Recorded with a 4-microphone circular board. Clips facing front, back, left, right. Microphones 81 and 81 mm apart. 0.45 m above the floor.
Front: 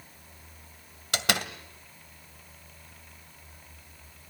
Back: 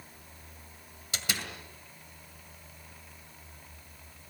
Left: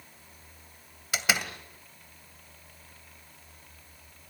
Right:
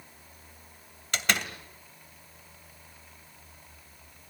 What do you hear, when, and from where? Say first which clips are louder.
1.1 s a door slam: front 8 dB, even; 5° left, 2 m